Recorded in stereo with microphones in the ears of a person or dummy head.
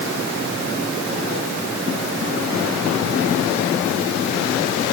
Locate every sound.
Only background noise.